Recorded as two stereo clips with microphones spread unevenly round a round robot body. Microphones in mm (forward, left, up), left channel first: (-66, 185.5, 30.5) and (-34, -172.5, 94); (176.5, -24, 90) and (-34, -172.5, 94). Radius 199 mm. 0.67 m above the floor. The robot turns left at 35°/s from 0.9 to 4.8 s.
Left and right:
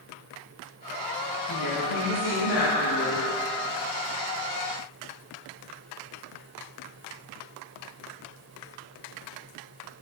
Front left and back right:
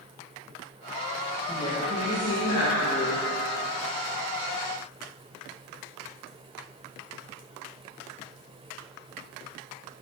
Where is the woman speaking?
115° left, 4.5 m; by 3.2 s 55° left, 4.5 m.